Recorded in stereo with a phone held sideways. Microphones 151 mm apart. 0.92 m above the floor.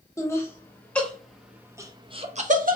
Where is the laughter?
20° left (ahead or behind), 1.5 m; by 2.8 s 60° right (ahead or behind), 0.7 m.